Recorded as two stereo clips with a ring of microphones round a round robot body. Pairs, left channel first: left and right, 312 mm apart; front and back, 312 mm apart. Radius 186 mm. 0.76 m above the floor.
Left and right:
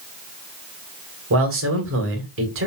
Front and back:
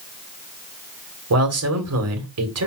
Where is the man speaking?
140° right, 2 m.